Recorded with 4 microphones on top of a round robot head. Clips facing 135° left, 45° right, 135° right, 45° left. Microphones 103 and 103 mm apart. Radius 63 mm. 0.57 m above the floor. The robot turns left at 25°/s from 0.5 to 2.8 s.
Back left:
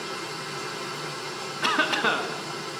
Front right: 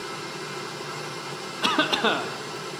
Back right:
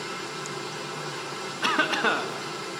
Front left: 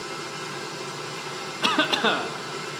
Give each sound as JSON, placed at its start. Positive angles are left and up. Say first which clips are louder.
{"t": 1.6, "sound": "a cough", "louder": "front right 1 dB, front left 2 dB", "azimuth_deg": 5, "distance_m": 0.8}